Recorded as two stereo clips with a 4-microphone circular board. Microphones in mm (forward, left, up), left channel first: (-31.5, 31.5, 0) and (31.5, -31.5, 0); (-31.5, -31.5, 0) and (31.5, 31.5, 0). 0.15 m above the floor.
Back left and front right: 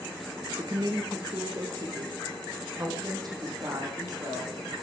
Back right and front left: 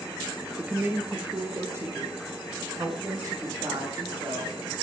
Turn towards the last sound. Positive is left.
turn(degrees=0)